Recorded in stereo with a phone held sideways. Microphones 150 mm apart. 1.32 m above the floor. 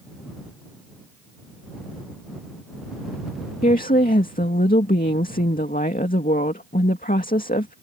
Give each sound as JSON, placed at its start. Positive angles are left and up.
{"t": 3.6, "sound": "a woman speaking", "side_deg": 70}